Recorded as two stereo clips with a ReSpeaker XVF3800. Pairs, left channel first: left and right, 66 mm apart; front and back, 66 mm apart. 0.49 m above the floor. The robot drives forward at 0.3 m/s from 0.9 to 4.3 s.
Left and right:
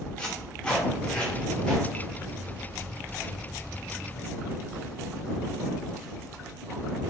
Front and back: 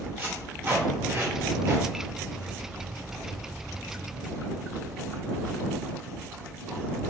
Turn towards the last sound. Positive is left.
turn(degrees=170)